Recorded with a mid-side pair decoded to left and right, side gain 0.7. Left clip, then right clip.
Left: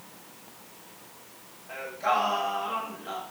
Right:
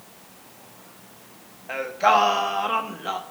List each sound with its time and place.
1.7 s singing: 50° right, 1.3 m